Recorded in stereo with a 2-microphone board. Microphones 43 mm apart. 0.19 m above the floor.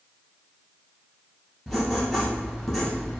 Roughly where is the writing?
Centre.